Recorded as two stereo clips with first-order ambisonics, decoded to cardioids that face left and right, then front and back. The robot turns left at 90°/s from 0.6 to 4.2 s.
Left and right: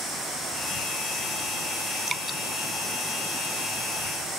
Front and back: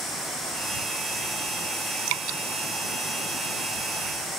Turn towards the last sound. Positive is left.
turn(degrees=5)